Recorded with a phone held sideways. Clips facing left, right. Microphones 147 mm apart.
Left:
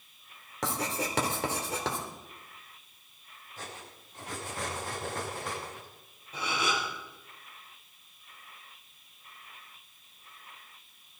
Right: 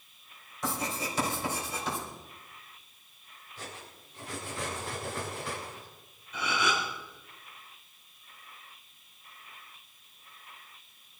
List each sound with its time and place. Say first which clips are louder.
0.6 s writing: left 1 dB; 80° left, 3.5 m
3.6 s cutlery clinking: even; 45° left (ahead or behind), 6.5 m
6.3 s a gasp: right 1 dB; 35° left (ahead or behind), 4 m